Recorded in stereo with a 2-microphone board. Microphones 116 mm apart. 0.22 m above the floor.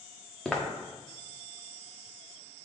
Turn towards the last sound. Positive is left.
turn(degrees=0)  # may be behind; listen again after turning